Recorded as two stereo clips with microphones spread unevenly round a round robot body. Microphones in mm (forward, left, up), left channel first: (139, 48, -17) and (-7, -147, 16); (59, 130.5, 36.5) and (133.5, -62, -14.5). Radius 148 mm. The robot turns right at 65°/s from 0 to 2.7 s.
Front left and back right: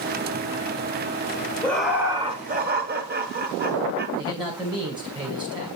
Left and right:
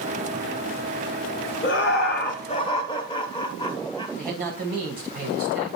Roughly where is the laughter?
Behind left.